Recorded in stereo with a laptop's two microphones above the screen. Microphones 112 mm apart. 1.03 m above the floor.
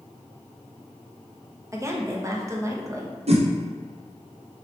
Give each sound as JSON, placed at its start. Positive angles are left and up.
{"t": 1.7, "sound": "a woman speaking", "side_deg": -25, "distance_m": 0.6}
{"t": 3.3, "sound": "a whoosh", "side_deg": -60, "distance_m": 0.5}